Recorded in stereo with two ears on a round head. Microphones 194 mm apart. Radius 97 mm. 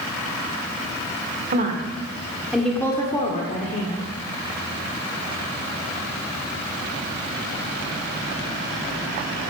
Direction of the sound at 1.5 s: 40° right (ahead or behind).